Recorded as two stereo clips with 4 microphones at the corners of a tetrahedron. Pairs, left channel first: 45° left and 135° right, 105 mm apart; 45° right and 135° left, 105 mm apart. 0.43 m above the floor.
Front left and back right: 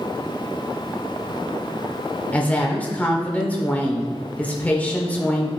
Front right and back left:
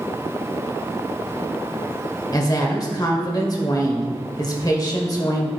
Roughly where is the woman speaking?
Ahead right.